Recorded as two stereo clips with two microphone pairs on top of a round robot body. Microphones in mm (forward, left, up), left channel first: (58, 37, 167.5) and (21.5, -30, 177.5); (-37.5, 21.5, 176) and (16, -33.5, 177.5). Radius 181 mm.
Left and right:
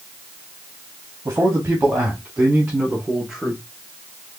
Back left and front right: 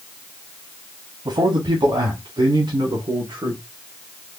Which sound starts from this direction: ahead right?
A man speaking, at 1.2 s.